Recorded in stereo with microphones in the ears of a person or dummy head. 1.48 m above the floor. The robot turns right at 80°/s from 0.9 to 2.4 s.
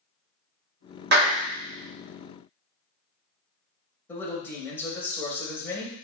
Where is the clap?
60° right (ahead or behind), 0.9 m; by 1.4 s 85° right, 0.9 m.